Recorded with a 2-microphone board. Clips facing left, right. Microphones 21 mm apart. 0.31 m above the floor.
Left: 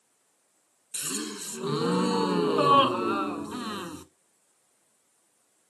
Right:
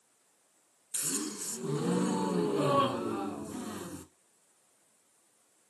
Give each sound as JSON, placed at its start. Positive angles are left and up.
{"t": 0.9, "sound": "a gasp", "side_deg": 85, "distance_m": 0.8}